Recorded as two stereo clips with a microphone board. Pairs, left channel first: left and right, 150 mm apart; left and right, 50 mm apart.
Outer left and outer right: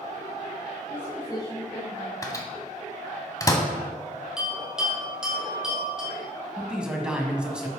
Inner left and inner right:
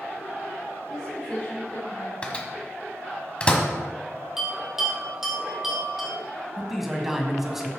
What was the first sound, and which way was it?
A woman speaking, 15° left (ahead or behind).